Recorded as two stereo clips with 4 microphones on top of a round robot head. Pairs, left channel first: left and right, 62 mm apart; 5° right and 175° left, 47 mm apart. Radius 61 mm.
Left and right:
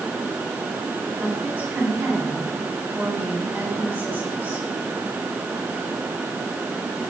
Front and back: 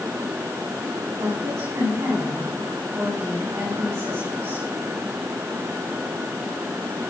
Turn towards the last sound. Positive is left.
turn(degrees=-150)